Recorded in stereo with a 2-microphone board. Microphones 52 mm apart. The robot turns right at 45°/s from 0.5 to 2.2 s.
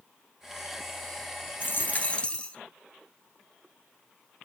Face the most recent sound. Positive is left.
turn(degrees=20)  # may be behind; listen again after turning